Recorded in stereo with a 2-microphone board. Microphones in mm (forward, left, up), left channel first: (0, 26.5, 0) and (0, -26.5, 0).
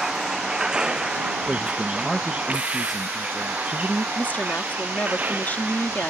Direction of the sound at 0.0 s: 10° right (ahead or behind).